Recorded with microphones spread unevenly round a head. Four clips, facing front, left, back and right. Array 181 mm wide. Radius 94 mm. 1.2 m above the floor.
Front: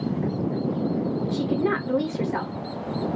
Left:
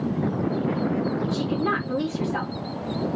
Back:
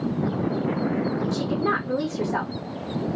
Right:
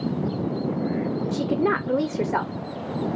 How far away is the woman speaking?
About 0.7 m.